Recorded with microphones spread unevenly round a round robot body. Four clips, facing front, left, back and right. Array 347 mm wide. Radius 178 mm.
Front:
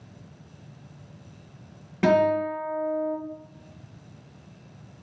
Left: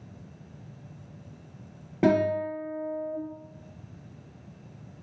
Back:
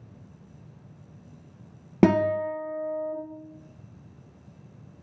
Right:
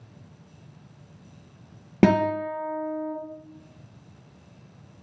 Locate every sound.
2.0 s a guitar: 120° right, 0.7 m